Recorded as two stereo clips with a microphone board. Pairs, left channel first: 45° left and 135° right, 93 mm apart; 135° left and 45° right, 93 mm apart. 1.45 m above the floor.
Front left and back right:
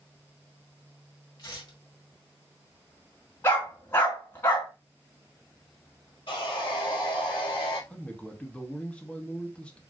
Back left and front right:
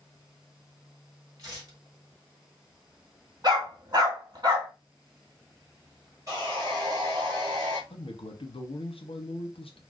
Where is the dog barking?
10° right, 2.5 m.